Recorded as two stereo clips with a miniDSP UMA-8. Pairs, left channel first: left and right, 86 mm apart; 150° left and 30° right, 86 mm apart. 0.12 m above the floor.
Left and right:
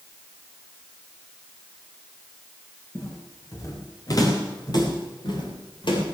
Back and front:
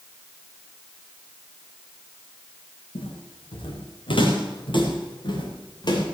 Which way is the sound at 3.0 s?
150° left.